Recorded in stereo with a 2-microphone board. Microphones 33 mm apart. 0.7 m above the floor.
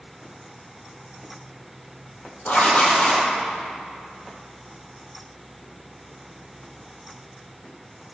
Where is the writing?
55° left (ahead or behind), 4 m.